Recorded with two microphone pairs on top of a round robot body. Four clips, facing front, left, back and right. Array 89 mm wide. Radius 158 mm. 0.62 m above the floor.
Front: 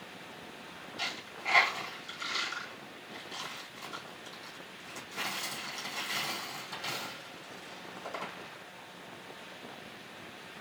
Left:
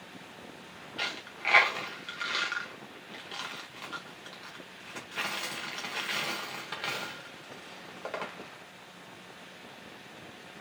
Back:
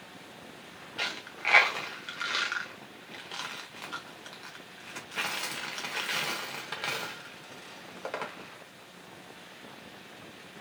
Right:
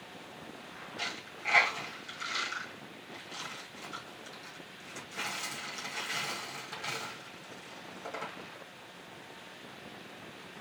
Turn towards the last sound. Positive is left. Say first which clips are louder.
# left 5 dB, back 4 dB
turn(degrees=155)